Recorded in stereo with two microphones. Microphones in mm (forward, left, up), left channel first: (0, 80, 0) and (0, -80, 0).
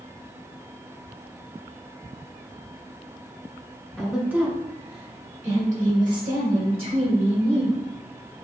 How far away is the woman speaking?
About 0.9 m.